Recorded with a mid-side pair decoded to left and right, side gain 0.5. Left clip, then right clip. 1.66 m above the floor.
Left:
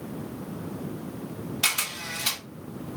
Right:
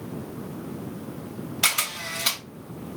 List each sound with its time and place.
1.6 s a camera shutter: 30° right, 2.5 m